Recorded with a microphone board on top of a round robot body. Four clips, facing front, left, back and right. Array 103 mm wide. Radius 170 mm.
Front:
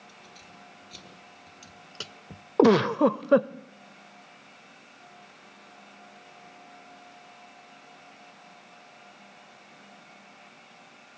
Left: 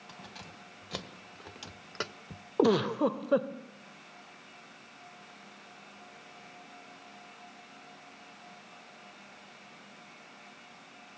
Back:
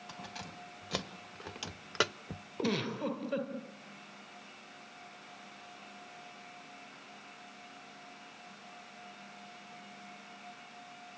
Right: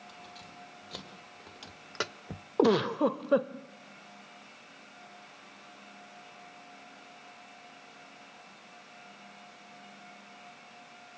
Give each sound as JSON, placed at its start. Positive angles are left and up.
{"t": 0.1, "sound": "keys jangling", "azimuth_deg": 155, "distance_m": 3.0}
{"t": 2.6, "sound": "a giggle", "azimuth_deg": -5, "distance_m": 0.7}